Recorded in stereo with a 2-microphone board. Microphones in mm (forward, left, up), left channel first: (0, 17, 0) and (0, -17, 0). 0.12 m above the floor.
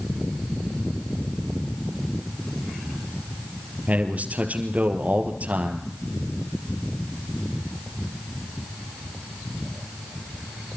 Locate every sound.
3.9 s a man speaking: 45° right (ahead or behind), 3 m